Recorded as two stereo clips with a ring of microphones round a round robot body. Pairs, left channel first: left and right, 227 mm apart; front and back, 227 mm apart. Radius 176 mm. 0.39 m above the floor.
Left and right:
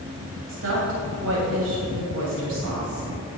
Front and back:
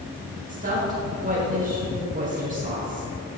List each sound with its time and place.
0.5 s a woman speaking: 120° right, 2.5 m